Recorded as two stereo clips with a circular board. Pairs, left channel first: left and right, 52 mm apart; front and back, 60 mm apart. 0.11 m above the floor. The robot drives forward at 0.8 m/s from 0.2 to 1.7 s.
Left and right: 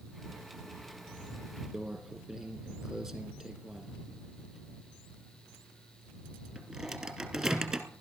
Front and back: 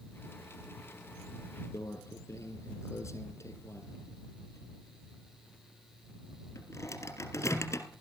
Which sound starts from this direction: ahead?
A microwave, at 1.7 s.